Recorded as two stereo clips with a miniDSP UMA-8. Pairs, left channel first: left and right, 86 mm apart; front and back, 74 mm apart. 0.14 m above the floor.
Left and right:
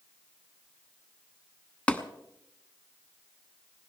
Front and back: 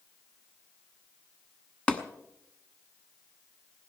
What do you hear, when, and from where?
1.9 s tapping: 45° left, 1.0 m